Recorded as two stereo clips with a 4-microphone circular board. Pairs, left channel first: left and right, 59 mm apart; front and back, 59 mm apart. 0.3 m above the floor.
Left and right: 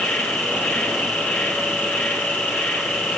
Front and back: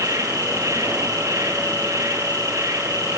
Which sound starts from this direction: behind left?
An insect, at 0.0 s.